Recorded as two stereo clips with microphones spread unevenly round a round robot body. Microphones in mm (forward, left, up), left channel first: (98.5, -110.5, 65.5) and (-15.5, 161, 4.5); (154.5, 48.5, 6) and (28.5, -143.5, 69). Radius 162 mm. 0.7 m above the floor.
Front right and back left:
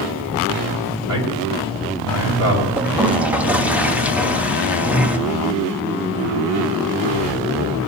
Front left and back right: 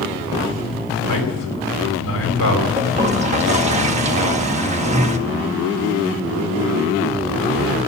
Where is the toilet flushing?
175° left, 0.7 m.